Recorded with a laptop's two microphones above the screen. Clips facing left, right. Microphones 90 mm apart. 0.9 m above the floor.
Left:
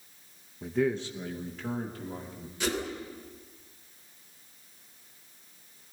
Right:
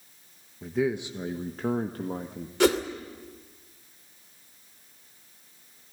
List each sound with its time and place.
0.6 s a man speaking: 5° left (ahead or behind), 0.9 m; by 2.5 s 60° right (ahead or behind), 1.6 m
2.6 s a whoosh: 80° right, 2.5 m